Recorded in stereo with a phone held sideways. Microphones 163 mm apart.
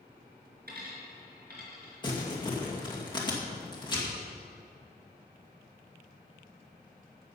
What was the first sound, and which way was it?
A dropped coin, 75° right (ahead or behind).